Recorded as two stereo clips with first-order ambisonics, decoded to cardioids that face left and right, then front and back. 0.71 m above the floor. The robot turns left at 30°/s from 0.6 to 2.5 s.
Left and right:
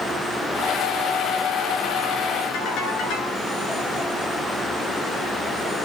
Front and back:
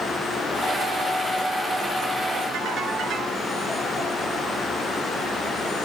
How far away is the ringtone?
About 7.5 m.